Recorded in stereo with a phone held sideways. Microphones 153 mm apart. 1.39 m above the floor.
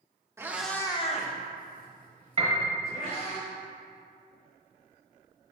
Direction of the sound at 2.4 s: 40° right (ahead or behind).